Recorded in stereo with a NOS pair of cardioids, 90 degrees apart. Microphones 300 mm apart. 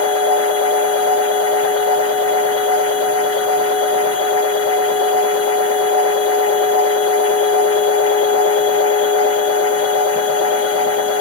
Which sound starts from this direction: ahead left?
A machine running, at 0.0 s.